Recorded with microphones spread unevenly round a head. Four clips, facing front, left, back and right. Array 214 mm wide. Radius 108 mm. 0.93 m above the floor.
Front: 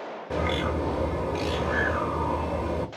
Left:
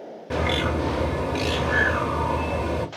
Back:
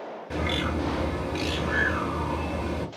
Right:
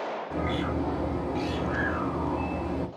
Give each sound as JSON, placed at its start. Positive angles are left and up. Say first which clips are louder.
{"t": 0.3, "sound": "a bird", "louder": "left 7 dB, front 2 dB", "azimuth_deg": 80, "distance_m": 1.3}